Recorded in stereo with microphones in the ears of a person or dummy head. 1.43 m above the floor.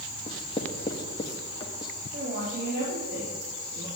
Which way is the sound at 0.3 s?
30° left (ahead or behind).